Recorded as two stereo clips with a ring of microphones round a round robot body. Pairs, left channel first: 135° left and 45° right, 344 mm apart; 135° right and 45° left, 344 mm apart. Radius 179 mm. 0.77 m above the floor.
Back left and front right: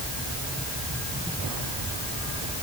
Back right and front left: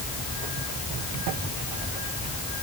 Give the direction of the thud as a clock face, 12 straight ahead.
I don't hear a thud.